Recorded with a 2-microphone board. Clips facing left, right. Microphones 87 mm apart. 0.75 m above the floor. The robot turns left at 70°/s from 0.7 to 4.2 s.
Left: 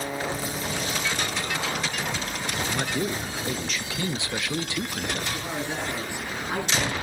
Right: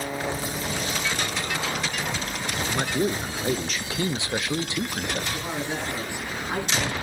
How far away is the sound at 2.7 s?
About 0.6 m.